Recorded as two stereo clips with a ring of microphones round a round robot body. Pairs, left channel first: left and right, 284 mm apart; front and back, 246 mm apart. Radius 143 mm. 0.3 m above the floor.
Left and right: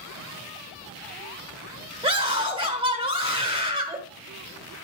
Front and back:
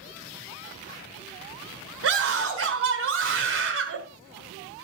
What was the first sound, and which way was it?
A scream, 165° right.